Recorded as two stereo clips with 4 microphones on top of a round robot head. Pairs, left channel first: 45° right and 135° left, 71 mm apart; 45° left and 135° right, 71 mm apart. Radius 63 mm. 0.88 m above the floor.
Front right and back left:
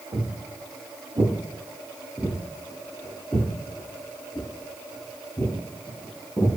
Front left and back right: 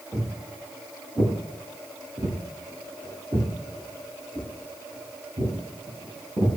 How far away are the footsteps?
About 1.4 m.